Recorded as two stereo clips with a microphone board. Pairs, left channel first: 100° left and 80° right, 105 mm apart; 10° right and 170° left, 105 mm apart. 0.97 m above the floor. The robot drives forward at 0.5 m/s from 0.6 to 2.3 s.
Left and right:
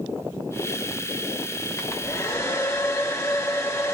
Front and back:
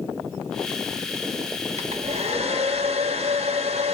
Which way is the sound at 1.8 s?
160° left.